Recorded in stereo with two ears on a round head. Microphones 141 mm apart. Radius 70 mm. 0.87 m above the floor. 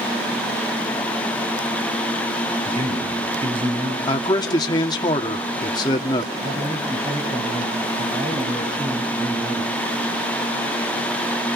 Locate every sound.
2.6 s a man speaking: 40° right (ahead or behind), 9.5 m
4.1 s a man speaking: 25° left (ahead or behind), 1.8 m
6.4 s a man speaking: 45° right (ahead or behind), 6.5 m